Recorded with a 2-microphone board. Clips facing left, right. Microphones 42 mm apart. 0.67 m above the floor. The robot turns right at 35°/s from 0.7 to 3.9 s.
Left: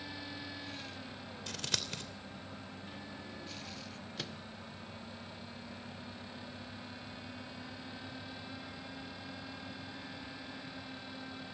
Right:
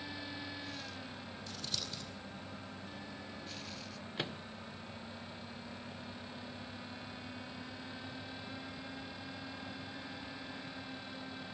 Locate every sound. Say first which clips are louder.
1.5 s scissors: left 5 dB; 70° left (ahead or behind), 2.5 m; by 2.0 s 50° left (ahead or behind), 2.5 m
4.2 s a microwave: right 5 dB; 25° right (ahead or behind), 0.5 m